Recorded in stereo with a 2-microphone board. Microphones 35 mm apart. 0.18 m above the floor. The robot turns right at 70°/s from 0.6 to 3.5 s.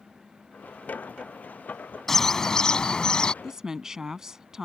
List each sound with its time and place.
2.1 s a bird: 5° left (ahead or behind); by 3.3 s 25° left (ahead or behind)
3.4 s a woman speaking: 15° right (ahead or behind)